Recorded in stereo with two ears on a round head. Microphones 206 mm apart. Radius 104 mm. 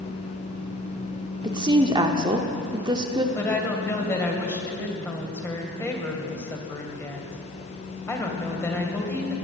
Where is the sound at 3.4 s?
10° left (ahead or behind), 2 m.